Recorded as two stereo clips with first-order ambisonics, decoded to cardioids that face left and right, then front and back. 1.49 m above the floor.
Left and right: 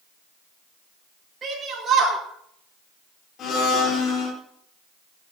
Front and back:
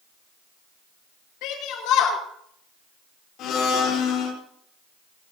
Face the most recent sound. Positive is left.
turn(degrees=40)